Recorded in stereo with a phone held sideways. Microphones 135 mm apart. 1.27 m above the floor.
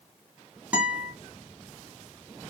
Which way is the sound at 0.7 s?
10° right (ahead or behind).